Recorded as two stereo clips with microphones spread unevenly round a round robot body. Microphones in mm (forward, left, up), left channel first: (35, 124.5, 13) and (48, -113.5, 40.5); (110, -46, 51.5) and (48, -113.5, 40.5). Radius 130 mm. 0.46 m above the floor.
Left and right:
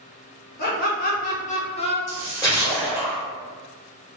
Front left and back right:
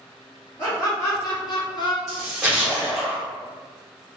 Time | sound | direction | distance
0.6 | laughter | 115° left | 1.0 m
2.1 | a splash | 150° left | 1.7 m